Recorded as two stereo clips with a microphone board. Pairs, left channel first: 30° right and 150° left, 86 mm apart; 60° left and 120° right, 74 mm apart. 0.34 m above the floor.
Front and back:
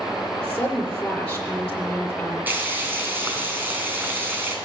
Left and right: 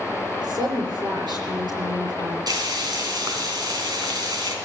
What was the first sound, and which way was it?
A woman speaking, 110° right.